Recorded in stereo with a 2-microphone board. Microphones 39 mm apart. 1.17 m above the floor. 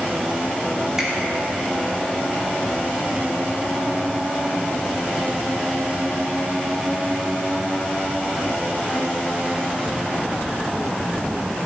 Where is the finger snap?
15° right (ahead or behind), 3 m.